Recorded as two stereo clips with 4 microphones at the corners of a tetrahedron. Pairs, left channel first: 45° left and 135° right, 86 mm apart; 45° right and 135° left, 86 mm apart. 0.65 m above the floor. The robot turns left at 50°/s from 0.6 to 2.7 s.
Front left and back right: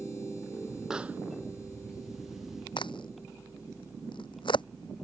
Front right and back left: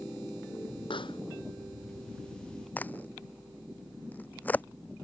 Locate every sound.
0.9 s a pop: 50° right; by 1.2 s 65° right
2.8 s a crack: 25° left